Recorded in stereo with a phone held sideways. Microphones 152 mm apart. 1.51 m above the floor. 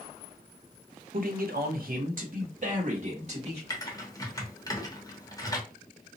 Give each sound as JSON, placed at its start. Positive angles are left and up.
{"t": 1.1, "sound": "a man speaking", "side_deg": -65, "distance_m": 0.6}
{"t": 3.7, "sound": "typing on a keyboard", "side_deg": 25, "distance_m": 0.8}